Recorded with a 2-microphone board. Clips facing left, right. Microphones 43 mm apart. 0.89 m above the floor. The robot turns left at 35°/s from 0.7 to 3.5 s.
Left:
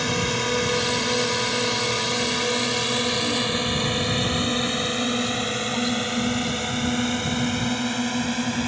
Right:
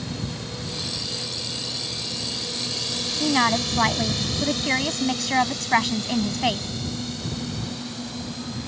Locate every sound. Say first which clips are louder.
0.0 s a drone: left 9 dB; 70° left (ahead or behind); by 8.7 s 60° left (ahead or behind)
3.2 s a woman speaking: right 3 dB; 70° right (ahead or behind); by 6.7 s 80° right